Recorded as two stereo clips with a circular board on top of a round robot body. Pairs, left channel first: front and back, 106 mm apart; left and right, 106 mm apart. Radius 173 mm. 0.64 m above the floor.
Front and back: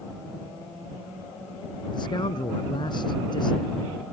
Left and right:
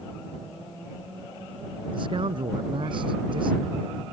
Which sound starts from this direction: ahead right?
A man speaking, at 1.9 s.